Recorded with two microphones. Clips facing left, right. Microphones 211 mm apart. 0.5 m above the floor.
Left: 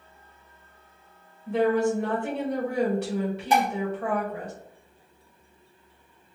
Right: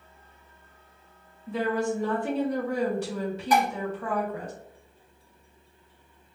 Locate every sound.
1.5 s a woman speaking: 65° left (ahead or behind), 1.8 m
3.5 s dishes clattering: 25° left (ahead or behind), 1.1 m